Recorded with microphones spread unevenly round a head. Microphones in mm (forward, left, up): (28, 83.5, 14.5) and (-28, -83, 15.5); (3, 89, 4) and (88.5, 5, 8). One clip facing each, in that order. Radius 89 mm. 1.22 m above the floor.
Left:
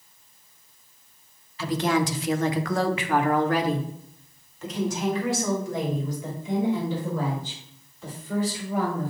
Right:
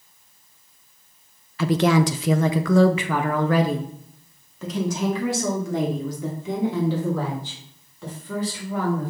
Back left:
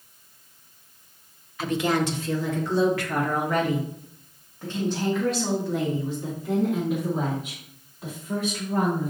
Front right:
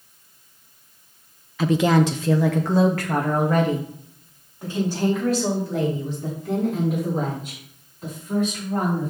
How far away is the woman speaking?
About 0.7 m.